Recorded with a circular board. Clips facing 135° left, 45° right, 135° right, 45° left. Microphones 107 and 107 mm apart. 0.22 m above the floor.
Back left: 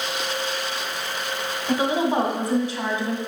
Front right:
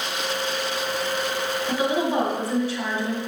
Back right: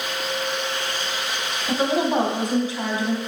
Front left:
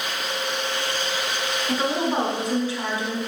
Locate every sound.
1.7 s a woman speaking: 175° right, 1.6 m